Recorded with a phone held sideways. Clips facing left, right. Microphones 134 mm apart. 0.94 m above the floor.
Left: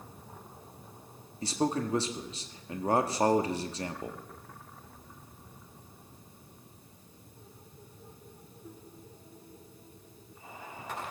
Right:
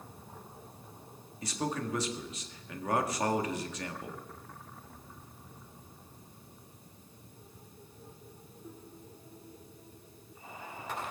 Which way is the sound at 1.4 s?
30° left (ahead or behind).